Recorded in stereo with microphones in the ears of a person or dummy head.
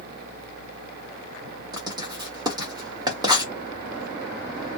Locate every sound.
1.7 s writing: 10° right (ahead or behind), 0.9 m